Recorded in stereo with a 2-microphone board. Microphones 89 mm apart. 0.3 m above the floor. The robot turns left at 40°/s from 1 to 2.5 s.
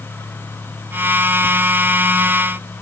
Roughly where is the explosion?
I don't hear an explosion.